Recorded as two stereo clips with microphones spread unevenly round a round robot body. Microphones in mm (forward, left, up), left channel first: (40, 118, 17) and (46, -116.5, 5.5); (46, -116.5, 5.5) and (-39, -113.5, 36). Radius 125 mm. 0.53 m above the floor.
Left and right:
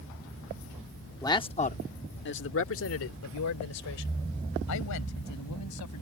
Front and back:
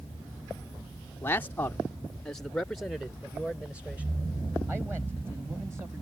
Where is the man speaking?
20° left; by 6.0 s 95° left.